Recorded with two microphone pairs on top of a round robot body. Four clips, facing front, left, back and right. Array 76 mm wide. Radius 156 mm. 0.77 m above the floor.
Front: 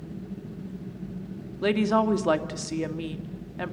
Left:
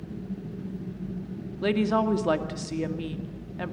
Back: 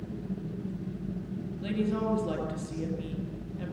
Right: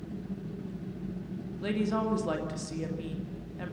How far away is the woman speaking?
About 2.5 m.